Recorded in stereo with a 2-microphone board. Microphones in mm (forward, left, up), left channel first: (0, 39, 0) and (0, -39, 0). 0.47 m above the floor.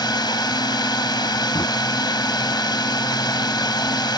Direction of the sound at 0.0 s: 65° left (ahead or behind).